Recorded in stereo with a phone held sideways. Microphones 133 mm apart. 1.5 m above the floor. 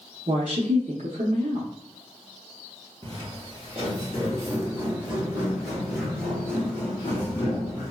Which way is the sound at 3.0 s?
40° right (ahead or behind).